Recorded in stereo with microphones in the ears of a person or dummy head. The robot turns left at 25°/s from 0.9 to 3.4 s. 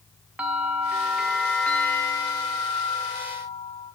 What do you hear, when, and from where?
0.4 s a bell: 175° right, 0.7 m; by 3.9 s 125° left, 0.7 m